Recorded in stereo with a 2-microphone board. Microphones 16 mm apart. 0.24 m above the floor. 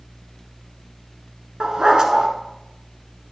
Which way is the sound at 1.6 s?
60° right (ahead or behind).